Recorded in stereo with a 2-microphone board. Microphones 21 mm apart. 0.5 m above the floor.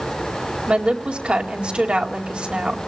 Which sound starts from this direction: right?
A woman speaking, at 0.7 s.